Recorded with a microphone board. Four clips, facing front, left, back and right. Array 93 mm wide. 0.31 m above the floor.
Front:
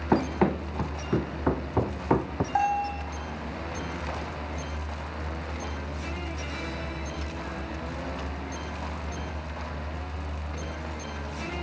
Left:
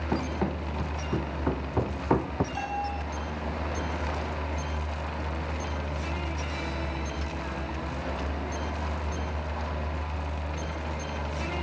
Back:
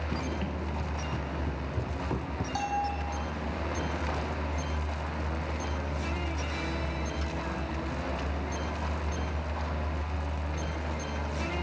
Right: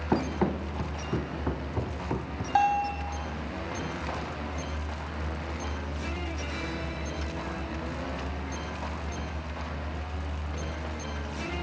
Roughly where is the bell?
Ahead right.